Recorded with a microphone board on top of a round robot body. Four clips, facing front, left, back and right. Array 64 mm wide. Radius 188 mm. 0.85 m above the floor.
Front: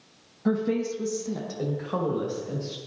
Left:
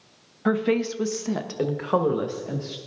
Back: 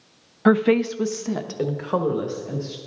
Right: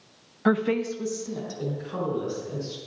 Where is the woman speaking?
170° right, 0.7 m; by 2.8 s 105° left, 1.9 m.